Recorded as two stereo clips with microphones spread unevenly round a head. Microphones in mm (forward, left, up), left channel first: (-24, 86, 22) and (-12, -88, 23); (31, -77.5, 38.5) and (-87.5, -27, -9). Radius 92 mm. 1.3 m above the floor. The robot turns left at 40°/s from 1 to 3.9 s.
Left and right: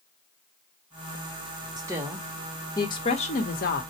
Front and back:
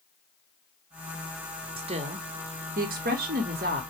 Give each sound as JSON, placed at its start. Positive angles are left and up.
{"t": 1.8, "sound": "a woman speaking", "azimuth_deg": -155, "distance_m": 1.2}